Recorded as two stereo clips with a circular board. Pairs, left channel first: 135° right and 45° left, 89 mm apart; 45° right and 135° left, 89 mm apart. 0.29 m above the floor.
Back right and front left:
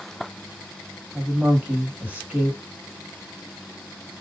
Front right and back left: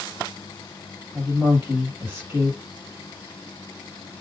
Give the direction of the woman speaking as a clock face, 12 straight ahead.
9 o'clock.